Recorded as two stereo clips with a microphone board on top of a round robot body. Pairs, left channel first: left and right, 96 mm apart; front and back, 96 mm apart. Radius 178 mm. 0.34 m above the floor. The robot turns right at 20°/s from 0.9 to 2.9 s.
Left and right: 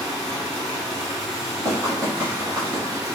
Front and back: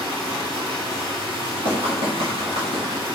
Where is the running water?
170° left, 2.0 m; by 3.2 s 150° right, 2.0 m.